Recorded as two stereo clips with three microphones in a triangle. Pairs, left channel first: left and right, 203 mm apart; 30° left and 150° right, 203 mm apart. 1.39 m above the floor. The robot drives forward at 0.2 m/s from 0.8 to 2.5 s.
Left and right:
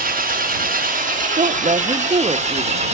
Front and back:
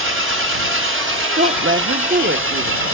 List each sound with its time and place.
0.0 s an engine running: 140° right, 1.0 m; by 2.9 s 150° right, 1.3 m
1.4 s a woman speaking: 145° right, 0.5 m; by 2.8 s 155° right, 0.7 m